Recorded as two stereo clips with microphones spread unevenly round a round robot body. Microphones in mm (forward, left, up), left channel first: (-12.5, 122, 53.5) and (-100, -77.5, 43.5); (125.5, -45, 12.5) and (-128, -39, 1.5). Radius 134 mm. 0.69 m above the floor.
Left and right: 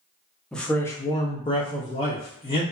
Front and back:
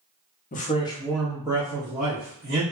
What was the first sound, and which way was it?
A man speaking, 20° right.